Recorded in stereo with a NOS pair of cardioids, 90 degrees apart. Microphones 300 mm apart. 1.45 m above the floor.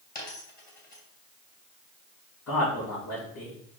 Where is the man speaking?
65° left, 3 m.